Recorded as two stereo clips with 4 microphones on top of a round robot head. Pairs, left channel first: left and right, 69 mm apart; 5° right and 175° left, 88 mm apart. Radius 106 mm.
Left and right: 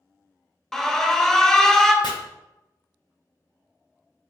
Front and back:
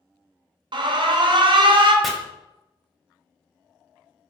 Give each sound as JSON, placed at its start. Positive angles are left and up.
{"t": 0.7, "sound": "an alarm", "azimuth_deg": 175, "distance_m": 0.7}
{"t": 2.0, "sound": "chopping", "azimuth_deg": 85, "distance_m": 0.8}